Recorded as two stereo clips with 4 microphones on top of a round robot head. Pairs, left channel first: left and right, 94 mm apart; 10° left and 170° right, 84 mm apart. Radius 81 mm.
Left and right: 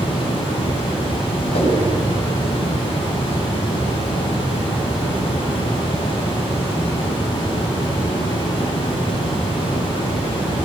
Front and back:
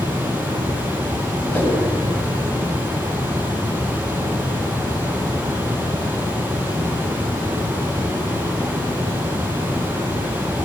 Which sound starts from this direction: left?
A whoosh, at 1.5 s.